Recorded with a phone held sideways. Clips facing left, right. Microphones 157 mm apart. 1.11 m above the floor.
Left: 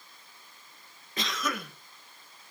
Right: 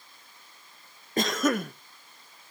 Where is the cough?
50° right (ahead or behind), 0.8 m.